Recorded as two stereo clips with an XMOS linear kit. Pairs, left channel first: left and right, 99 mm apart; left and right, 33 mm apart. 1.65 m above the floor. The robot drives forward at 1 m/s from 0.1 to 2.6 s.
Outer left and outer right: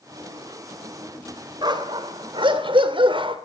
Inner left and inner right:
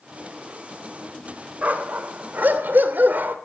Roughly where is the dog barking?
Right.